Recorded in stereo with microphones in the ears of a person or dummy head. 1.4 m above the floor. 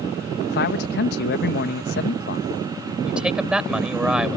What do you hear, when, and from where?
0.5 s a man speaking: 60° left (ahead or behind)
3.0 s a man speaking: 5° right (ahead or behind)